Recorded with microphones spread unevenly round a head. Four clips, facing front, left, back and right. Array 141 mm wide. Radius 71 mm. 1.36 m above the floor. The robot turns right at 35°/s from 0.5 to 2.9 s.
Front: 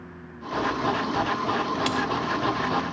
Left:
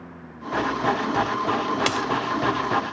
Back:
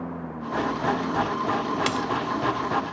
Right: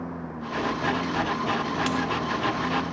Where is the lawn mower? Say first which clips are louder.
Right 4 dB, back 7 dB; 150° right; by 2.9 s 65° right.